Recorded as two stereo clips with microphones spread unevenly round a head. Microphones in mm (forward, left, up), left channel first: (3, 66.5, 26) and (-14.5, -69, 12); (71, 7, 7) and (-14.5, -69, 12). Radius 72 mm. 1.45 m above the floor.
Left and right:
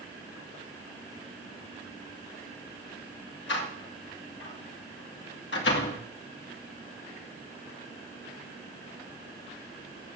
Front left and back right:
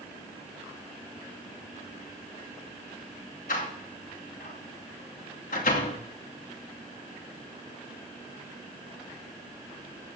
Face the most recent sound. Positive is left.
turn(degrees=80)